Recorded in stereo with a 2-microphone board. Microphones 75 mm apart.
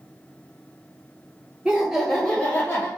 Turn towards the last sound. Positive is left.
turn(degrees=35)  # may be behind; listen again after turning